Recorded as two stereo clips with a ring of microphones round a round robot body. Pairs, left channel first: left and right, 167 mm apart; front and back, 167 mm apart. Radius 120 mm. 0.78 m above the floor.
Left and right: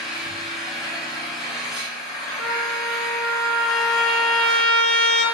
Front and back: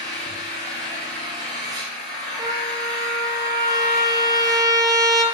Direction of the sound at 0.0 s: 150° left.